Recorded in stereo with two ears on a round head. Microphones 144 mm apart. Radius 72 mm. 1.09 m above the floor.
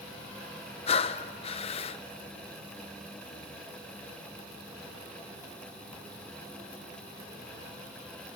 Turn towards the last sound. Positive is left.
turn(degrees=40)  # may be behind; listen again after turning